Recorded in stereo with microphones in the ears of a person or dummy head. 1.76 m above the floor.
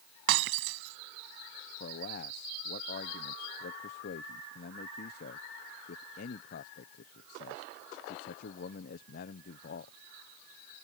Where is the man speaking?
60° left (ahead or behind).